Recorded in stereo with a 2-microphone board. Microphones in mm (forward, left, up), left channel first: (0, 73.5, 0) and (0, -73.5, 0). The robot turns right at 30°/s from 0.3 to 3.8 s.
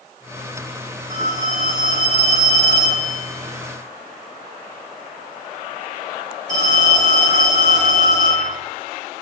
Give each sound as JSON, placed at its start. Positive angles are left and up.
{"t": 1.1, "sound": "a phone ringing", "azimuth_deg": -135, "distance_m": 1.4}